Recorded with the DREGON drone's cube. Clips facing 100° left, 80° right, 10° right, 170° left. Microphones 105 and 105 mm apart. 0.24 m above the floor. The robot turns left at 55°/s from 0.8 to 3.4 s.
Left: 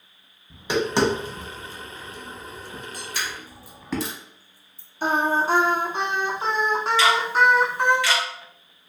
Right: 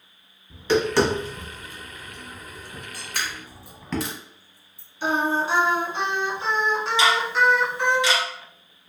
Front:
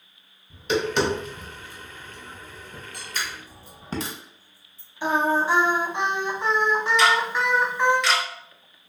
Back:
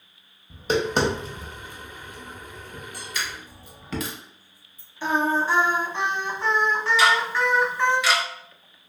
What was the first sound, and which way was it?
Tapping, 165° left.